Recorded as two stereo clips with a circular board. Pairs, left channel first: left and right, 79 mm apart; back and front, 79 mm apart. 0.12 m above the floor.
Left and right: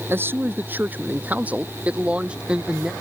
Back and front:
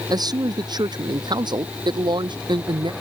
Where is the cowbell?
No cowbell in this recording.